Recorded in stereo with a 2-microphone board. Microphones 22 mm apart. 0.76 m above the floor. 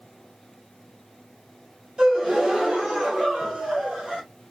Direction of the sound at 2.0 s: 45° right (ahead or behind).